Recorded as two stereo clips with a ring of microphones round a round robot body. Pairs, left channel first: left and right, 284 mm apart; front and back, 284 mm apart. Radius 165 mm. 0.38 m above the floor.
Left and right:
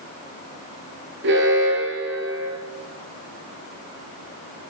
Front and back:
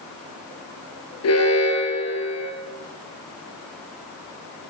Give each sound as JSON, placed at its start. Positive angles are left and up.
{"t": 1.2, "sound": "an alarm", "azimuth_deg": -35, "distance_m": 8.0}